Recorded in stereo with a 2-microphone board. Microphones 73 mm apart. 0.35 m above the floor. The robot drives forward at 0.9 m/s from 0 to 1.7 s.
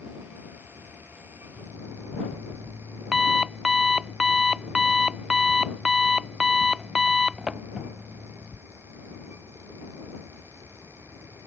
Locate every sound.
1.6 s an alarm clock: 5° right (ahead or behind)